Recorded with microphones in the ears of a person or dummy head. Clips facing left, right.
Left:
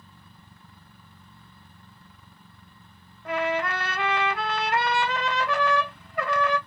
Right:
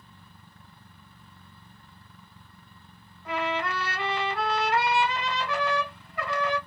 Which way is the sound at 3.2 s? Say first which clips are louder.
Left 3 dB; 50° left (ahead or behind).